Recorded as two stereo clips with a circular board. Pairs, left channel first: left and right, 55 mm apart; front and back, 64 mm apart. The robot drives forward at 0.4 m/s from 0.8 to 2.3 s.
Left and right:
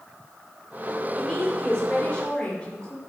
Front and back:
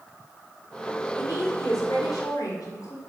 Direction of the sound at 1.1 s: 15° left.